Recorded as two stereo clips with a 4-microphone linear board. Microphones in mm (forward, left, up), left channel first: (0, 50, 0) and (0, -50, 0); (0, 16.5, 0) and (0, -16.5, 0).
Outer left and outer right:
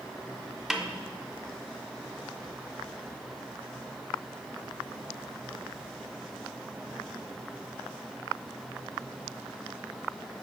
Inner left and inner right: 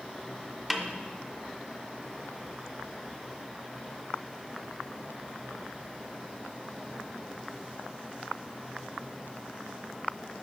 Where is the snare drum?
5° right (ahead or behind), 0.5 m.